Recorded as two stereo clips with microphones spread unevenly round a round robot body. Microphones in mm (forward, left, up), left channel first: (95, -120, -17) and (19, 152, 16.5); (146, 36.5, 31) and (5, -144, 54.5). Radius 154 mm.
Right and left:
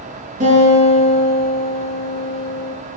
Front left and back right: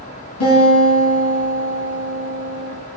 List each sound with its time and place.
0.4 s a guitar: 45° left, 7.5 m